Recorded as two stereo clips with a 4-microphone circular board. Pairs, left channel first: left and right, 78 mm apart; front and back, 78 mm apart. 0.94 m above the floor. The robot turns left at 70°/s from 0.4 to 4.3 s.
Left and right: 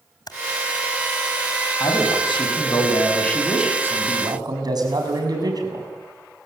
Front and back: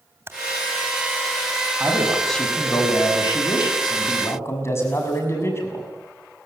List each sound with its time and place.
0.3 s typing on a keyboard: 120° left, 3 m
1.8 s a man speaking: 120° left, 6.5 m; by 5.9 s 55° right, 6.5 m